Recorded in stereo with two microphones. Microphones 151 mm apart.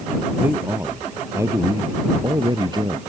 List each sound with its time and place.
0.4 s a man speaking: 10° right (ahead or behind); by 3.0 s 30° right (ahead or behind)